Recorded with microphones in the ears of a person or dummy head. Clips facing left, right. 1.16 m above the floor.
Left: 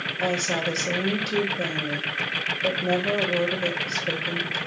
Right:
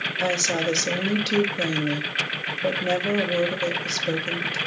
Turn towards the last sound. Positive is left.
turn(degrees=-20)  # may be behind; listen again after turning